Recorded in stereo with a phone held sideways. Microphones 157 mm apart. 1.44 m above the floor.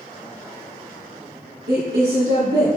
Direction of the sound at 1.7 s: 80° right.